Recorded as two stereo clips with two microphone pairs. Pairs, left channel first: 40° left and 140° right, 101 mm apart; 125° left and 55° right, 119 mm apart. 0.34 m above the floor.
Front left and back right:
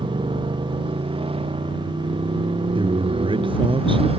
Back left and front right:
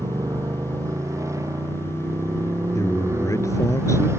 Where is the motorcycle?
115° right; by 4.2 s 120° right.